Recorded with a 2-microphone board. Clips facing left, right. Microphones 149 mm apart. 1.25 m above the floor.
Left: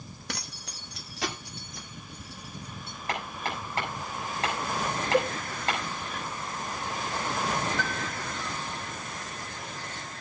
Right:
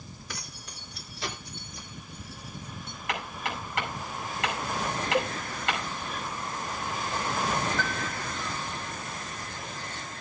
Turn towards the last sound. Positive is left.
turn(degrees=15)  # may be behind; listen again after turning